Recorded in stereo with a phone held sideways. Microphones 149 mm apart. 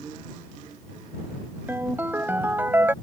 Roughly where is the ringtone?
Centre.